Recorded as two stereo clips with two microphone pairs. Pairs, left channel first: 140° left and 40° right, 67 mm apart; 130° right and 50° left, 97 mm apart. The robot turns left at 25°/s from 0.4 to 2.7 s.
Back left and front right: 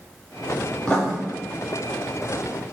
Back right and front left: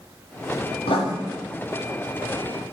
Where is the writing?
145° right, 3.5 m; by 1.1 s 155° right, 3.5 m.